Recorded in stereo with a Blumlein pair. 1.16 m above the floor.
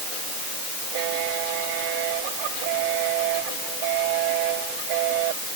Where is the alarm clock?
I don't hear an alarm clock.